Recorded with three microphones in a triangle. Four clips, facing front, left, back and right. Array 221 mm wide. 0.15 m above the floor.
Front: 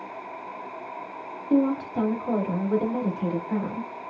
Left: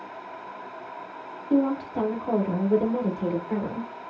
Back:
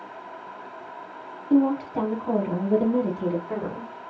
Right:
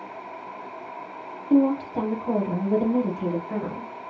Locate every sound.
1.5 s a woman speaking: 125° right, 1.2 m; by 3.9 s 160° left, 1.8 m